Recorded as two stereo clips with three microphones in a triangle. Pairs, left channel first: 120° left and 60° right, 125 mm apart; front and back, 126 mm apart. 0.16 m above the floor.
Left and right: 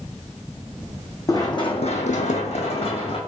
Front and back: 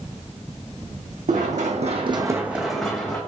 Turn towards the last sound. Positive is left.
turn(degrees=75)